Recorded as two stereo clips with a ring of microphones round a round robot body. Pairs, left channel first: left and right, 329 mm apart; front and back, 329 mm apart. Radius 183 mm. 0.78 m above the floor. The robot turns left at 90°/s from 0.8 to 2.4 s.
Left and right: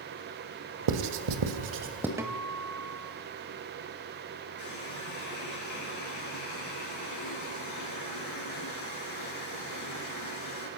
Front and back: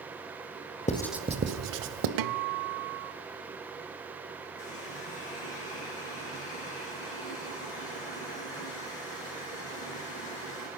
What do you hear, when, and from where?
0.9 s writing: 70° right, 2 m; by 2.1 s 175° right, 2 m
2.2 s a guitar: 170° right, 0.7 m; by 3.1 s 170° left, 0.7 m
4.6 s a running tap: 55° left, 8 m